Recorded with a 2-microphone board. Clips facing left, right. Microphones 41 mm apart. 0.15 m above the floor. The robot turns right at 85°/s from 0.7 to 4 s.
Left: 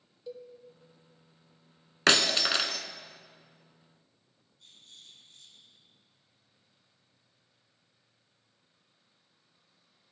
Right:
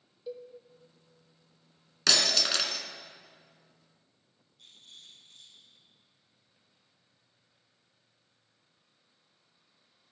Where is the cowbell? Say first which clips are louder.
Right 2 dB; 10° right (ahead or behind), 0.7 m.